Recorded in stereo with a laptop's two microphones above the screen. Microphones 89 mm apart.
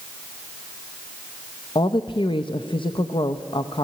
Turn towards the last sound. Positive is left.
turn(degrees=70)  # may be behind; listen again after turning